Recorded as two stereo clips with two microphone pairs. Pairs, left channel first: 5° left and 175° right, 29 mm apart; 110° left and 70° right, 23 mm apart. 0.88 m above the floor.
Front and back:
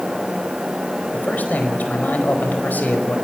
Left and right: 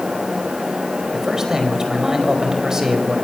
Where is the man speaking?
10° right, 5 m.